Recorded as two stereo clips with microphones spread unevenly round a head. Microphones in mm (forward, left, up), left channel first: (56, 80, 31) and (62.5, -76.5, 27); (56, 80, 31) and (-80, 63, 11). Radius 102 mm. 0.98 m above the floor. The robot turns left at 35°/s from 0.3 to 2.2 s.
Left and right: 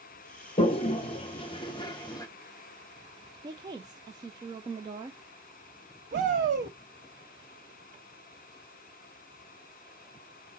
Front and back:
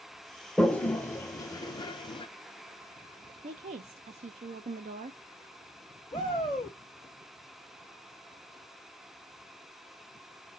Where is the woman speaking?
150° right, 0.5 m.